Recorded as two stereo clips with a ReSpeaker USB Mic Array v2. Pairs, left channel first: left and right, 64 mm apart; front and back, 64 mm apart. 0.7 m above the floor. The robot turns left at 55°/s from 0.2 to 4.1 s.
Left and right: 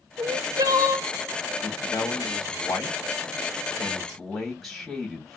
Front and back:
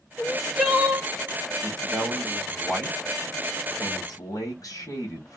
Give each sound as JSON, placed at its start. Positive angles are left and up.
{"t": 0.2, "sound": "crying", "azimuth_deg": -70, "distance_m": 0.8}
{"t": 1.6, "sound": "a man speaking", "azimuth_deg": 135, "distance_m": 2.0}